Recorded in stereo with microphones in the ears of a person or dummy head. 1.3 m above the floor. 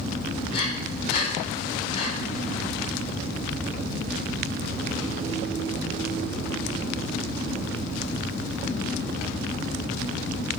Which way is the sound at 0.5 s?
35° left (ahead or behind).